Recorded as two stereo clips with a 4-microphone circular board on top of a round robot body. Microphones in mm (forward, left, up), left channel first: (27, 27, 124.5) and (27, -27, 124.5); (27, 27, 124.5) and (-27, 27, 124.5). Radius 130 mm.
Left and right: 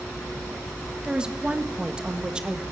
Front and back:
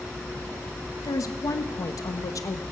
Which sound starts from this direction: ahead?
A woman speaking, at 1.0 s.